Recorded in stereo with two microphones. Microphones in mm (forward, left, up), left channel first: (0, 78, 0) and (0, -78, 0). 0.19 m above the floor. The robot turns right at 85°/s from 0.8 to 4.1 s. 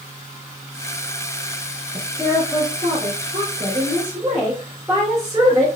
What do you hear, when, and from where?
1.9 s a woman speaking: 145° left, 2.5 m; by 5.7 s 30° right, 2.5 m